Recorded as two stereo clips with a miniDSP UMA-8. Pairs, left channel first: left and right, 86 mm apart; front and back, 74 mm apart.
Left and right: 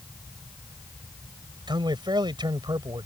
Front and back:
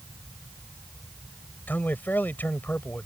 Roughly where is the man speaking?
Ahead right.